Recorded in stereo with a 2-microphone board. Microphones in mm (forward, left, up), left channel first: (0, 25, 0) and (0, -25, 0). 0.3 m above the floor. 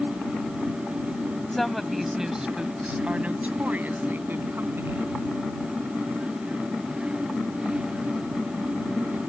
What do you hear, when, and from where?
1.5 s a woman speaking: 5° left (ahead or behind); by 5.2 s 55° right (ahead or behind)